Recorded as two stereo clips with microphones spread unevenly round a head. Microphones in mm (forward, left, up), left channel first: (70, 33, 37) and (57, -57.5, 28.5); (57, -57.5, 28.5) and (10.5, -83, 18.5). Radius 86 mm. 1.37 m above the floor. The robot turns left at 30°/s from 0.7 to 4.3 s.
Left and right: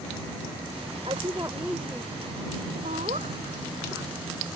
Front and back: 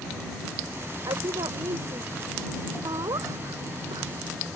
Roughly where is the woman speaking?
Behind.